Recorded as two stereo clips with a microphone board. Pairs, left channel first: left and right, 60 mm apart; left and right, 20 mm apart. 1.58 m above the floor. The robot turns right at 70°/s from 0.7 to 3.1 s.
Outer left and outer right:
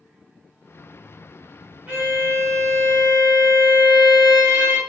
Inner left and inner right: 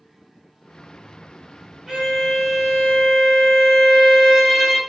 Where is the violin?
140° right, 1.3 m; by 4.8 s 55° right, 1.3 m.